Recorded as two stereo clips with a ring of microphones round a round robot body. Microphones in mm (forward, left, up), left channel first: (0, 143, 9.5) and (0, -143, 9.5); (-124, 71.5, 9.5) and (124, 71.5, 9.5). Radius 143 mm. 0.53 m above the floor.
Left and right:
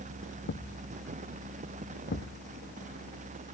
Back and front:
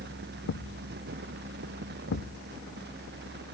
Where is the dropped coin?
No dropped coin in this recording.